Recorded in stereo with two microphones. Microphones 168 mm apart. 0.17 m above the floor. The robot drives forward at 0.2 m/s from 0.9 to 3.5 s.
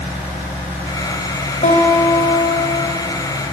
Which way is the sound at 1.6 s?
45° left (ahead or behind).